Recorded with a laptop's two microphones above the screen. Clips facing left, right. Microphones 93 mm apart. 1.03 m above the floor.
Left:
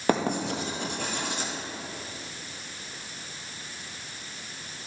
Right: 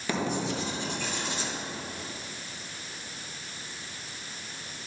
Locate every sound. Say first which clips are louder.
0.1 s writing: left 4 dB; 50° left (ahead or behind), 1.5 m